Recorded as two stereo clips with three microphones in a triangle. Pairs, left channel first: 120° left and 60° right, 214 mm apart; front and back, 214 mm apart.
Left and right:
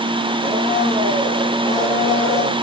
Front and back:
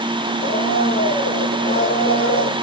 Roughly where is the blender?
Ahead.